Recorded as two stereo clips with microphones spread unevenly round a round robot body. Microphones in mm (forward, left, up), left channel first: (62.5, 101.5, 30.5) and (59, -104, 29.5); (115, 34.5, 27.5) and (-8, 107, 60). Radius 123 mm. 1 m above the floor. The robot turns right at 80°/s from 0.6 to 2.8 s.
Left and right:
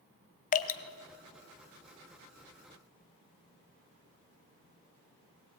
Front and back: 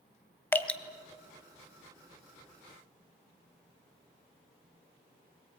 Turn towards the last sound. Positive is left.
turn(degrees=-130)